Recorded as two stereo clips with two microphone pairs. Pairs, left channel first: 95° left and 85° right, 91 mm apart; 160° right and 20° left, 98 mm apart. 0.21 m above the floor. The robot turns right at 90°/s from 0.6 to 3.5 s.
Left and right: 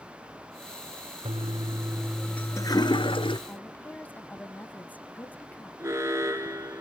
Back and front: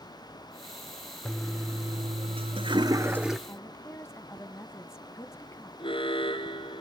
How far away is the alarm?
About 2 m.